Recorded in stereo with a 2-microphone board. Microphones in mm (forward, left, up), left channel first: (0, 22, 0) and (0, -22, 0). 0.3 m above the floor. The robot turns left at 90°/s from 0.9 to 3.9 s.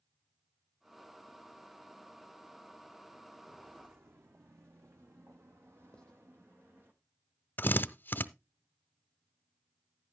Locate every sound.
3.3 s footsteps: centre (ahead or behind), 1.5 m; by 6.9 s 55° right (ahead or behind), 2 m
5.9 s writing: 15° left (ahead or behind), 0.8 m
7.6 s a drill: 50° left (ahead or behind), 0.5 m